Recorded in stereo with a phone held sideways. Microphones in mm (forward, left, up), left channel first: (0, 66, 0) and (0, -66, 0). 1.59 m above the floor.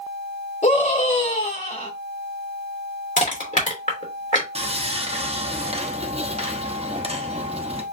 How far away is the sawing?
About 0.9 m.